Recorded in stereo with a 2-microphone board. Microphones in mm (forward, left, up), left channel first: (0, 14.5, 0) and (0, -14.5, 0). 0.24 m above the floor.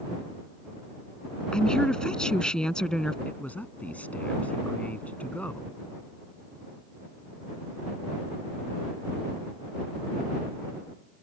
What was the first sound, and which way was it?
A woman speaking, 25° left (ahead or behind).